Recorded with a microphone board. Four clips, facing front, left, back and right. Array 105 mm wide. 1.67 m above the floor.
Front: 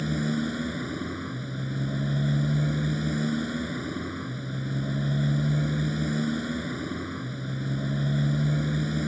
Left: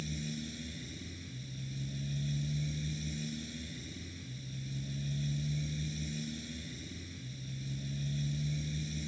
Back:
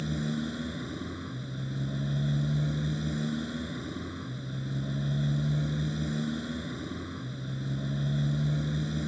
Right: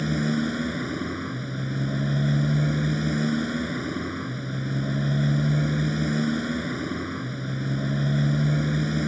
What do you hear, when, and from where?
0.0 s a motorcycle: 70° right